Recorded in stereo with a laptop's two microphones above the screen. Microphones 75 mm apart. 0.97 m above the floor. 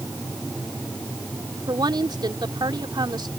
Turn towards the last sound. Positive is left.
turn(degrees=-80)